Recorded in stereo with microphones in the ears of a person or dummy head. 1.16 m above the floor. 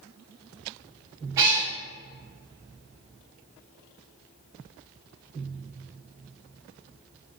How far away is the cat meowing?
About 0.6 m.